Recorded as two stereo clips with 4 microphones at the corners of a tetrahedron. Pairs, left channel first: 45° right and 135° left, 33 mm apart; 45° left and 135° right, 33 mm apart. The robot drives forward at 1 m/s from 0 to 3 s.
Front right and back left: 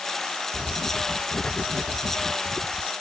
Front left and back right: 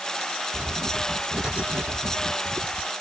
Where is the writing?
105° right; by 2.9 s 135° right.